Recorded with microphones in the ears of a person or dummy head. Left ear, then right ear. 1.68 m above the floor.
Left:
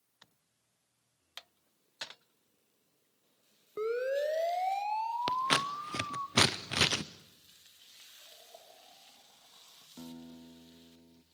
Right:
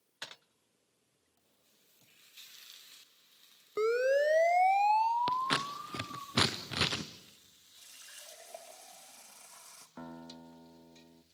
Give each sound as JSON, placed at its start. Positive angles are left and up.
{"t": 3.8, "sound": "a siren", "side_deg": -80, "distance_m": 2.0}
{"t": 5.3, "sound": "scissors", "side_deg": 15, "distance_m": 0.7}
{"t": 7.8, "sound": "a running tap", "side_deg": -65, "distance_m": 2.5}
{"t": 10.0, "sound": "a guitar", "side_deg": -30, "distance_m": 1.0}